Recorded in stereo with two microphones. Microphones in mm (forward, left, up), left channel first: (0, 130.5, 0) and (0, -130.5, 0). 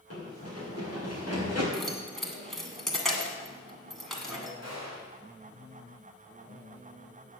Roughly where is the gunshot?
Left.